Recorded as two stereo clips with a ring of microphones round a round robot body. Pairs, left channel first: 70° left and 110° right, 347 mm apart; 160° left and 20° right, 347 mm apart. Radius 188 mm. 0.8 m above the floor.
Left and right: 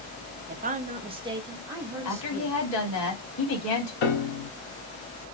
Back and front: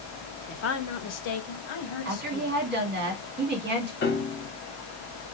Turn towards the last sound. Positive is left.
turn(degrees=95)